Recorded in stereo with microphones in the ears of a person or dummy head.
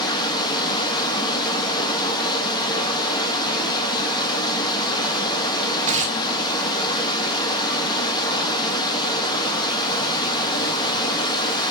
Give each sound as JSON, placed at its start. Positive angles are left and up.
{"t": 0.0, "sound": "running water", "side_deg": 20, "distance_m": 1.6}
{"t": 5.9, "sound": "tearing paper", "side_deg": -30, "distance_m": 0.7}